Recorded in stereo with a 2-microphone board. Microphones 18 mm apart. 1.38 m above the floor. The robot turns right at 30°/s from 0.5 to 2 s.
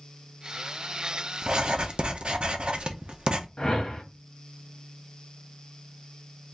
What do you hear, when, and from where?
1.4 s writing: 50° right (ahead or behind), 0.6 m; by 3.5 s 60° right (ahead or behind), 0.6 m
3.6 s a whoosh: 50° left (ahead or behind), 1.1 m